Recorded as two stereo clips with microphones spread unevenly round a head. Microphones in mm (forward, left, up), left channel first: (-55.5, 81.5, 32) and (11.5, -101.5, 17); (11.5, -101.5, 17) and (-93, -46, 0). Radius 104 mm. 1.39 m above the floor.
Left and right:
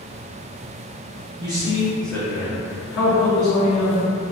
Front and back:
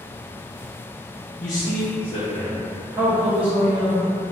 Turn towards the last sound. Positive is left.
turn(degrees=120)